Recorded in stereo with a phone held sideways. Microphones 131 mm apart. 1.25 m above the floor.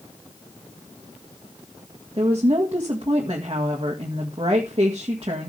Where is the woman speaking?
40° right (ahead or behind), 2.0 m.